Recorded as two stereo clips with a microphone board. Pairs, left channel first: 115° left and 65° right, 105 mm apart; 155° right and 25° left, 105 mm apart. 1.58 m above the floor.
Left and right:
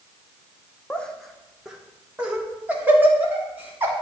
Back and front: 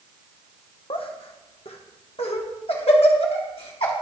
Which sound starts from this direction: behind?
Laughter, at 0.9 s.